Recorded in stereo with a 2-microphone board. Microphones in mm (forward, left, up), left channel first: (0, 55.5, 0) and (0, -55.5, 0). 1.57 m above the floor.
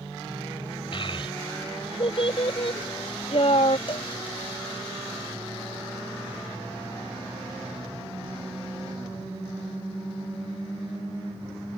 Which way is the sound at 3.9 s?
55° left (ahead or behind).